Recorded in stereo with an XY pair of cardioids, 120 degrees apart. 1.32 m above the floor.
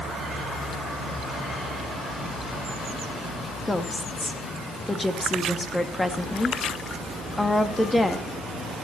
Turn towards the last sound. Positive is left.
turn(degrees=10)